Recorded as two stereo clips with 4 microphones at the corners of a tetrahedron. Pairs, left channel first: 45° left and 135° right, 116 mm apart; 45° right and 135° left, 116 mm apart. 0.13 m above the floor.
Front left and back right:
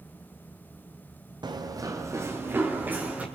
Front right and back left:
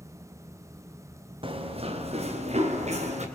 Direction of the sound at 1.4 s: 175° left.